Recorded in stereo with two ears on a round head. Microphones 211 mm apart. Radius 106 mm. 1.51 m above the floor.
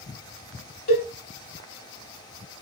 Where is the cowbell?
40° left (ahead or behind), 3 m.